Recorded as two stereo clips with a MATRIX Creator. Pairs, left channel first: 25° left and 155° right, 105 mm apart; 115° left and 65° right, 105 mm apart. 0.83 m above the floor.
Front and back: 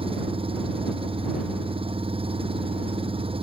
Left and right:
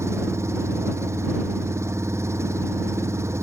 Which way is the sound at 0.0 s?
130° right.